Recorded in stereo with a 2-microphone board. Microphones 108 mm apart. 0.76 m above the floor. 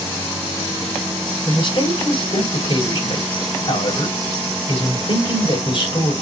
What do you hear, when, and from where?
1.4 s a man speaking: 55° left (ahead or behind), 4 m